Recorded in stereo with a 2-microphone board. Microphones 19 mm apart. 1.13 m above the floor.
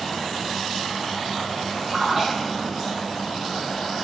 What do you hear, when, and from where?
1.9 s a splash: 10° right (ahead or behind), 0.9 m